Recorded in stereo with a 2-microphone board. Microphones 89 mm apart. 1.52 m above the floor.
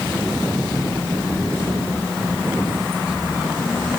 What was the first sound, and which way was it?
Only background noise.